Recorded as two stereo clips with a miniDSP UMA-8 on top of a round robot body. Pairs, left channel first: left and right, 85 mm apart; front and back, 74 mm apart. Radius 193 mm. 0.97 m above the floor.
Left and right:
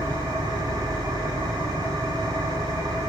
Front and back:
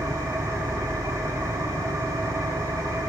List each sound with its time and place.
0.0 s an engine running: 135° right, 4 m